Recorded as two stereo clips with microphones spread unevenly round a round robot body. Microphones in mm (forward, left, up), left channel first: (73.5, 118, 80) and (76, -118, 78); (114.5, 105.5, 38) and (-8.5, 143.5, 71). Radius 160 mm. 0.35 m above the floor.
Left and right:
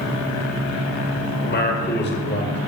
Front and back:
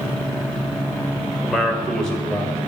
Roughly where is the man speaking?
Ahead left.